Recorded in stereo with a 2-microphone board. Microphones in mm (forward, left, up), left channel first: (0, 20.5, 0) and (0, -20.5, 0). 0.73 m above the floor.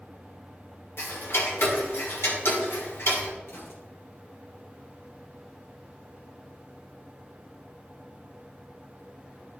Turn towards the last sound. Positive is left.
turn(degrees=80)